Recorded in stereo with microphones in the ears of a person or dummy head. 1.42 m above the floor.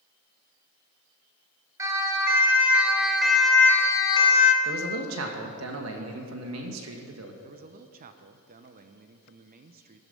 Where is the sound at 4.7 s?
75° right (ahead or behind), 2 m.